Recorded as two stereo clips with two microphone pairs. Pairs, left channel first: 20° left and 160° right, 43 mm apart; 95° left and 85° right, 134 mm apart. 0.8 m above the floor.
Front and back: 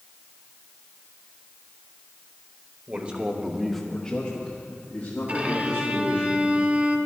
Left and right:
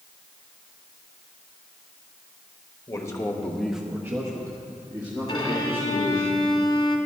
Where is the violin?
150° left, 1.5 m.